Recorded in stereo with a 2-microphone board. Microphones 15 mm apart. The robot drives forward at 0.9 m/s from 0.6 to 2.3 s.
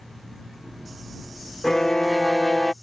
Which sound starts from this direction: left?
A violin, at 1.6 s.